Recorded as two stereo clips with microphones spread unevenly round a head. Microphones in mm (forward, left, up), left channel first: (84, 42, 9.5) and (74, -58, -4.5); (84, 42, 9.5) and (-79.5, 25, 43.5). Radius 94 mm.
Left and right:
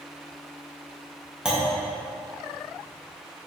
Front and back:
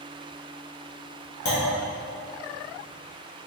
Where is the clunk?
15° right, 1.8 m.